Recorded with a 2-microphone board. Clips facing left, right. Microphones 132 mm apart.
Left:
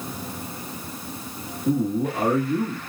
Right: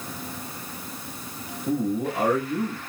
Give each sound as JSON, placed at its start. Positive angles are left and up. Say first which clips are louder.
{"t": 1.6, "sound": "a man speaking", "louder": "left 3 dB", "side_deg": 30, "distance_m": 1.6}